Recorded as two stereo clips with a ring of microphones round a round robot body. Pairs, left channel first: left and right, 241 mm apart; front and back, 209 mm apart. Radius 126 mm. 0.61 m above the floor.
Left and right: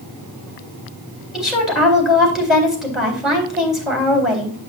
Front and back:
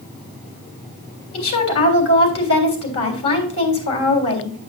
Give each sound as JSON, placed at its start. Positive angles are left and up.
{"t": 1.3, "sound": "a woman speaking", "azimuth_deg": 0, "distance_m": 3.5}